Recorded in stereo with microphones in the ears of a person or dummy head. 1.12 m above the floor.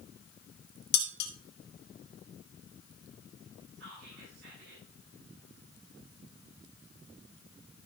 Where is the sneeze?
I don't hear a sneeze.